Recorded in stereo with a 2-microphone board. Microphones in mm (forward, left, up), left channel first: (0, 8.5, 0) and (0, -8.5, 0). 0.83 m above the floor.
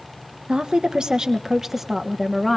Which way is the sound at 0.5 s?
60° right (ahead or behind).